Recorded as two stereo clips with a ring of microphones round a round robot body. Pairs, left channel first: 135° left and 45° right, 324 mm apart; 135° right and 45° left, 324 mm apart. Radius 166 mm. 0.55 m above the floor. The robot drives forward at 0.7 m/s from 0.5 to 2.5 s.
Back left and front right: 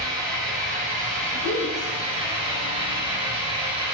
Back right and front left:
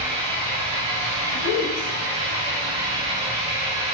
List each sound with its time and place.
0.0 s an engine running: 20° left, 4.5 m; by 3.9 s 30° left, 3 m
1.3 s a woman speaking: 140° right, 2.5 m; by 1.9 s 145° right, 2.5 m